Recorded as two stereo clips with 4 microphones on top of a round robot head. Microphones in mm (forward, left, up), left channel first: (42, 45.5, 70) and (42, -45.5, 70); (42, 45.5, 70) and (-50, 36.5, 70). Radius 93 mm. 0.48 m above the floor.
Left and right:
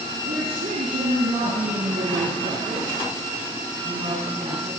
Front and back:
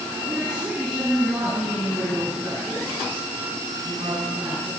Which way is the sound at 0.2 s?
100° right.